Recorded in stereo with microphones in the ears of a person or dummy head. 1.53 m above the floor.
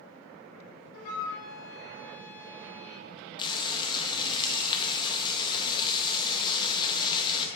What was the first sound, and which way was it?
A flute, 45° left (ahead or behind).